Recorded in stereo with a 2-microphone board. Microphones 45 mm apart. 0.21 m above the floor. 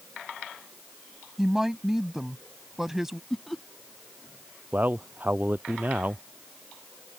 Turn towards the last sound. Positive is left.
turn(degrees=-40)  # may be behind; listen again after turning